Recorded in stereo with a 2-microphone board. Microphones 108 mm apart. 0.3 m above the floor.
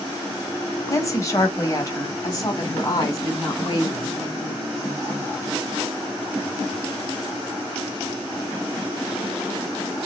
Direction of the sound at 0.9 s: 30° left (ahead or behind).